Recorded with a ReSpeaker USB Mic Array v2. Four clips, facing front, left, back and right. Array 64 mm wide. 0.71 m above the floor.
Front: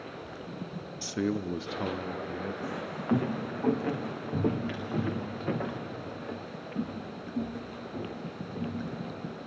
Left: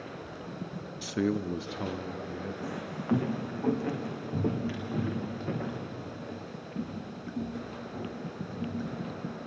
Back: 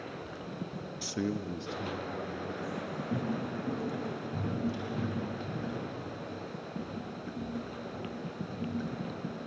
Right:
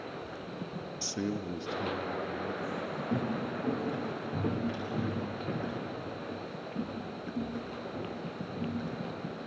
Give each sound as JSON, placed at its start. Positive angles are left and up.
{"t": 1.0, "sound": "a man speaking", "azimuth_deg": 105, "distance_m": 0.7}
{"t": 2.6, "sound": "footsteps", "azimuth_deg": 35, "distance_m": 3.5}